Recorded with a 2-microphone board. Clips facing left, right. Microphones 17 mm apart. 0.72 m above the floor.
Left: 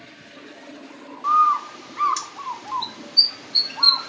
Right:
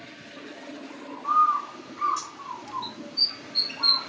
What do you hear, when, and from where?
1.2 s a bird: 55° left (ahead or behind), 0.5 m